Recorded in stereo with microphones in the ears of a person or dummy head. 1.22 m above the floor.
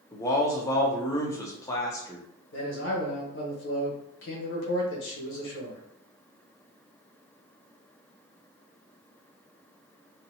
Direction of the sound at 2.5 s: 65° left (ahead or behind).